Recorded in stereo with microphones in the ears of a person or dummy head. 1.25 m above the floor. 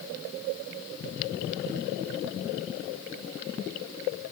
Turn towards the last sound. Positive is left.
No sound to turn to.